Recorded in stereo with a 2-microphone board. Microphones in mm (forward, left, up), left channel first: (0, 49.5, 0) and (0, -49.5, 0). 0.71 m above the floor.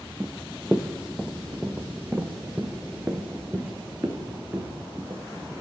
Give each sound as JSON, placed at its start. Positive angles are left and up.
{"t": 0.2, "sound": "running footsteps", "side_deg": 0, "distance_m": 1.3}